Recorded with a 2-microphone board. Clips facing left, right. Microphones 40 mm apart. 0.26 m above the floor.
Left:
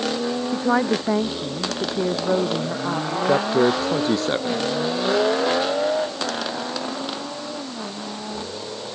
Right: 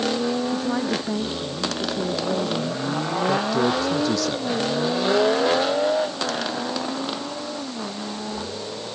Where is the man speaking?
30° left (ahead or behind).